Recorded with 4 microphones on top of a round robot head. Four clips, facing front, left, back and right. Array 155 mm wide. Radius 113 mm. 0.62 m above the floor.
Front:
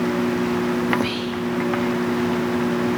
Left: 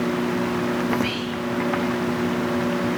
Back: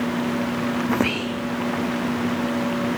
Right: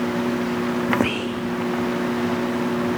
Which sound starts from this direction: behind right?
Whispering, at 0.9 s.